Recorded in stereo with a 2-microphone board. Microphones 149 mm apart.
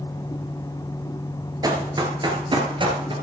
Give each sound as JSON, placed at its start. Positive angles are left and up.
{"t": 1.6, "sound": "running footsteps", "side_deg": -25, "distance_m": 1.9}